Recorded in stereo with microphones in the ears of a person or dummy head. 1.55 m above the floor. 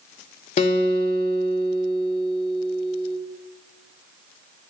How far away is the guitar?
About 0.7 m.